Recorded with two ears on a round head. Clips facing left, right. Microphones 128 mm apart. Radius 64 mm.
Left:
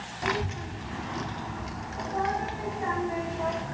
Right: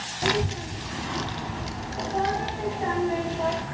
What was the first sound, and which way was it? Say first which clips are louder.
A child speaking: right 4 dB; 40° right (ahead or behind).